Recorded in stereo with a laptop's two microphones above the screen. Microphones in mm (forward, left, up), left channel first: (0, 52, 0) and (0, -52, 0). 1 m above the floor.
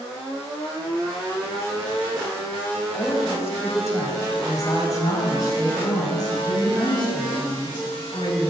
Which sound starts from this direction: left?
A woman speaking, at 2.9 s.